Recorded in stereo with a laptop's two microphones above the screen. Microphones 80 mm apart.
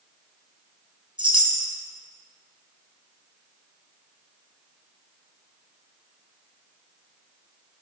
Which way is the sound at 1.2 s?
80° right.